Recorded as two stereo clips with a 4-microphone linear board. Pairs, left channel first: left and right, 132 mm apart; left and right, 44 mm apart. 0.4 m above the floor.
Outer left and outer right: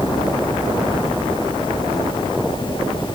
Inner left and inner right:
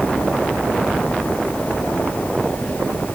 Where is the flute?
No flute in this recording.